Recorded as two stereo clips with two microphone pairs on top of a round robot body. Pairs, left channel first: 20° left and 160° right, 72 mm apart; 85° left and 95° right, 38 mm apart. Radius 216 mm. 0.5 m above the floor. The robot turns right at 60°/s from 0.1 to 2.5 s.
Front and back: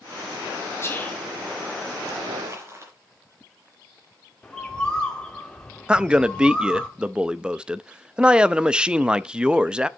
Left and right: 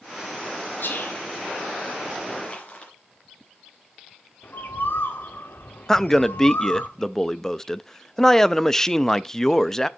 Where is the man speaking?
150° left, 0.7 m.